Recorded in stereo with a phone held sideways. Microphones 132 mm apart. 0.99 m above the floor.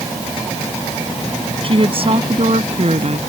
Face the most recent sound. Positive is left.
turn(degrees=-55)  # may be behind; listen again after turning